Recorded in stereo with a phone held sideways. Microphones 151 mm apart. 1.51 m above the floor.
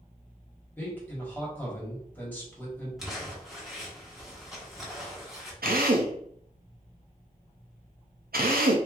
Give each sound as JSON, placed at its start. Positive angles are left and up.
{"t": 0.8, "sound": "a man speaking", "side_deg": 10, "distance_m": 1.4}
{"t": 3.0, "sound": "crumpling", "side_deg": 0, "distance_m": 1.0}
{"t": 5.6, "sound": "a drill", "side_deg": -80, "distance_m": 0.6}